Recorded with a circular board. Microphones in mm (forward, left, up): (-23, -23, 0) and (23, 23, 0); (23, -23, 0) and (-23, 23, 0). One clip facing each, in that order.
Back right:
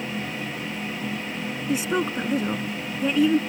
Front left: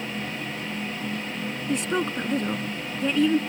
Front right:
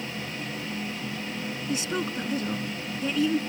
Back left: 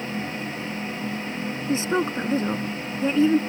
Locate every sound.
1.7 s a woman speaking: 145° left